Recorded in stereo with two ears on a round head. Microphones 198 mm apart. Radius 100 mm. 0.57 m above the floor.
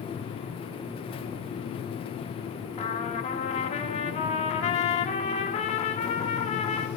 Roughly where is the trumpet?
Left.